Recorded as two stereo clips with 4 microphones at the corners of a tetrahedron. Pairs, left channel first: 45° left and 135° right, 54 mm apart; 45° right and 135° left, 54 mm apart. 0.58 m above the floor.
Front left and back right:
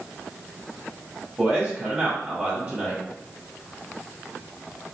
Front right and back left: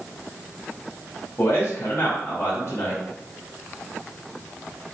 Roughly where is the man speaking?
Right.